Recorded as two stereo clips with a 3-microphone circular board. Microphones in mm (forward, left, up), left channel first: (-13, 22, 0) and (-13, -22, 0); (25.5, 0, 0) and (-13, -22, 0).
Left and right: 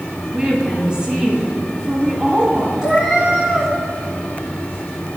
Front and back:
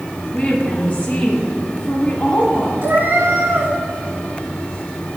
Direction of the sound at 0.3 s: 25° right.